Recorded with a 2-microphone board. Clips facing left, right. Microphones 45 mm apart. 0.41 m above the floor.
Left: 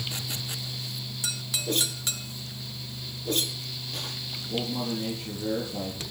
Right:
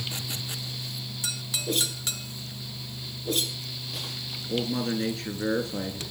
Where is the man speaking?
80° right, 9 m.